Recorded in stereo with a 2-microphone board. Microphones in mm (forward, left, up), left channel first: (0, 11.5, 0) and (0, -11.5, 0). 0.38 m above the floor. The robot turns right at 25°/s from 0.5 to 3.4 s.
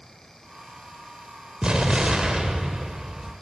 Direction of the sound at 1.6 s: 85° right.